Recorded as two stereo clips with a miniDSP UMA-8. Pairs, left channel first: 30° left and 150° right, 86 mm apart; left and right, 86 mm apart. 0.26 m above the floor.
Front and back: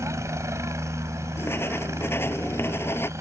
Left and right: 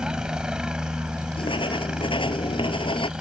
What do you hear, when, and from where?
0.0 s a helicopter: 165° right
1.4 s writing: 95° left